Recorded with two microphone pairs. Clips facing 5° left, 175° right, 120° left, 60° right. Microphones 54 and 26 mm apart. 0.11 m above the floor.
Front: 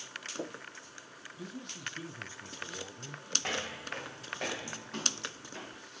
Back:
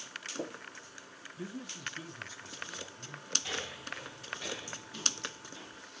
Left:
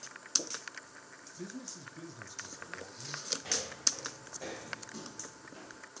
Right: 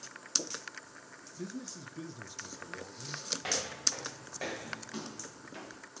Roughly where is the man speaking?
Behind right.